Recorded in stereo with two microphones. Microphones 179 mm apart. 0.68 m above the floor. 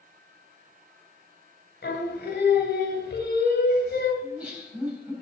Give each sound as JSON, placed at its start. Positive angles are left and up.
{"t": 1.8, "sound": "singing", "side_deg": 70, "distance_m": 1.9}
{"t": 4.2, "sound": "laughter", "side_deg": -5, "distance_m": 4.0}